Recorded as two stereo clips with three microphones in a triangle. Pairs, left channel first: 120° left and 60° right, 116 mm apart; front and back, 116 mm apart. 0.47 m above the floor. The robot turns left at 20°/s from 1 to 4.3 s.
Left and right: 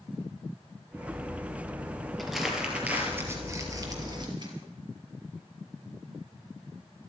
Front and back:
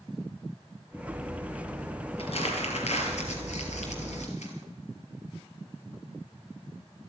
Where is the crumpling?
30° left, 3 m; by 4.5 s 10° right, 3 m.